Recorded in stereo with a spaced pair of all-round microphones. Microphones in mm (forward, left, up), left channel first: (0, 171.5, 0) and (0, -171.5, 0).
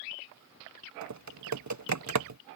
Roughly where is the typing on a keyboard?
Right.